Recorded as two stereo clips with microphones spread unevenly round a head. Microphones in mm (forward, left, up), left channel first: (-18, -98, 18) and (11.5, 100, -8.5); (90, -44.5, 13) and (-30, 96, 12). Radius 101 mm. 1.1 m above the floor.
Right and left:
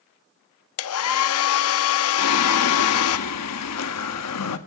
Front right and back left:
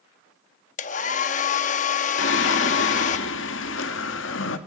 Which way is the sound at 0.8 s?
105° right.